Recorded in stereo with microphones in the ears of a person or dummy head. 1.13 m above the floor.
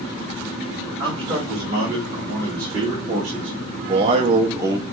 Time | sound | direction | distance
1.0 | a man speaking | 20° right (ahead or behind) | 1.9 m